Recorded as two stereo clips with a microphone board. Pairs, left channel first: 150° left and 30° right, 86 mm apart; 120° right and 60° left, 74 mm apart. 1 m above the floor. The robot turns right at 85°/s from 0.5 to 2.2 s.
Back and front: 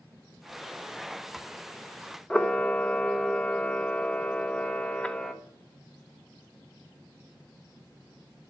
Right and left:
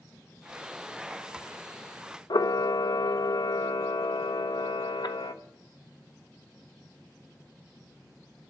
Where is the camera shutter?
130° right, 1.3 m.